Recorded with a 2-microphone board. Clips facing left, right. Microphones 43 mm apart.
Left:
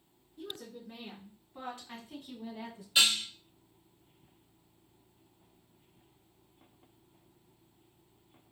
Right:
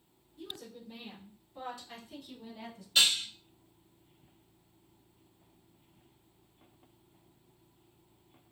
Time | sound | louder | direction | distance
0.4 | a woman speaking | left 2 dB | 55° left (ahead or behind) | 2.5 m
3.0 | dishes clattering | even | 15° left (ahead or behind) | 1.7 m